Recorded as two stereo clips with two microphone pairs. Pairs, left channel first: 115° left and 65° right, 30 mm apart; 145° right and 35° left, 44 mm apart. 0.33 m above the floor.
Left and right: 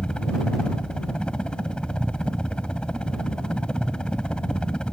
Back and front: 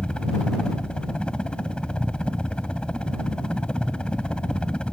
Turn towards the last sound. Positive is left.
turn(degrees=155)